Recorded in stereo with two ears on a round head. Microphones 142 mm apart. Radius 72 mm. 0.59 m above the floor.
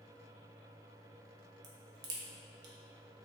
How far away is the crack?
About 0.5 m.